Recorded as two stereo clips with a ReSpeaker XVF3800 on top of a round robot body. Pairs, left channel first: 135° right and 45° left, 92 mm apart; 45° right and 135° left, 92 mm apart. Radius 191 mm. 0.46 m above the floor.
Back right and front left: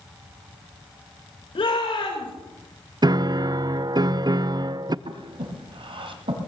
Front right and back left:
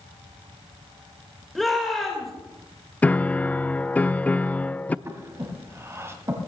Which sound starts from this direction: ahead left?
A piano, at 3.0 s.